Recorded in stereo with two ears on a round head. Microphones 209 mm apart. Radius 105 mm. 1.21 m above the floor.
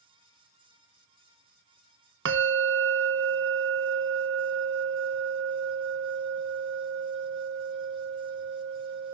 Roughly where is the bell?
Right.